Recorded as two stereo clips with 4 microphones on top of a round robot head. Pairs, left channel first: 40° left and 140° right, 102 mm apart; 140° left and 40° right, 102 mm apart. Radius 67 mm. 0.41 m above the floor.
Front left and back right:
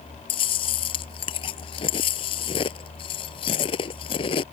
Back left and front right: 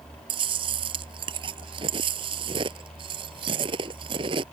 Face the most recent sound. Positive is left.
turn(degrees=0)